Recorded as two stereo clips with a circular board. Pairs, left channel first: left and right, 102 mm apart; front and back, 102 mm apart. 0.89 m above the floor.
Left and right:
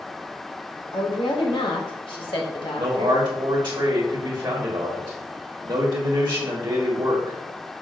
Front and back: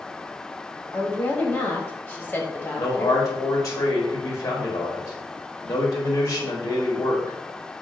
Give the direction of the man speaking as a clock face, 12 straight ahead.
2 o'clock.